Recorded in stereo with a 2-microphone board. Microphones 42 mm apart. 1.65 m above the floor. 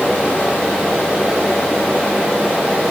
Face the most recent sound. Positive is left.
No sound to turn to.